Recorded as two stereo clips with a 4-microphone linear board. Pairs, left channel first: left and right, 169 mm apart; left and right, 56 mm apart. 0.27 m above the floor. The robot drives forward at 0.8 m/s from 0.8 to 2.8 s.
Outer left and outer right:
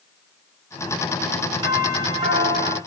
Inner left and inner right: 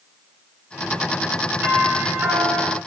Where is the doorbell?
25° right (ahead or behind), 4.5 m; by 2.8 s 35° right (ahead or behind), 3.5 m.